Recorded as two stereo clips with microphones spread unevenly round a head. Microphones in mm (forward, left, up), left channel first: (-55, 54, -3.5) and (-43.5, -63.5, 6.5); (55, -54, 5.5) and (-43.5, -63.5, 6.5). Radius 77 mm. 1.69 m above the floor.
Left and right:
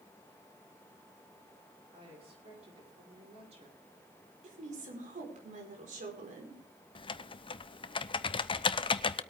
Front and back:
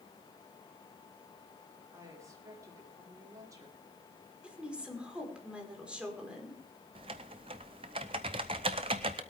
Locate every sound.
1.9 s a woman speaking: 115° right, 5.5 m
4.4 s a woman speaking: 95° right, 4.5 m
7.0 s typing on a keyboard: 140° left, 0.6 m